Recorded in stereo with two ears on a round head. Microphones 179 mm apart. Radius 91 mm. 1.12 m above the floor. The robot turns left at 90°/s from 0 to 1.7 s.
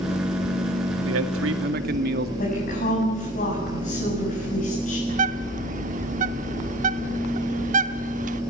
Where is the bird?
40° right (ahead or behind), 0.9 m.